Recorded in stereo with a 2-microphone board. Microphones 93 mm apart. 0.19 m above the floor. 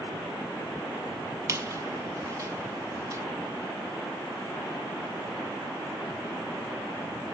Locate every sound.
1.5 s a squeak: 35° right (ahead or behind), 1.0 m